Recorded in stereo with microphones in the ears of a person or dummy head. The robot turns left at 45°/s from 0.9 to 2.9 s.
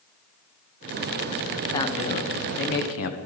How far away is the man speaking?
About 1.3 m.